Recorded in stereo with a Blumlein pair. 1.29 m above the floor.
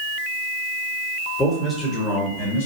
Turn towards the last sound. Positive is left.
turn(degrees=55)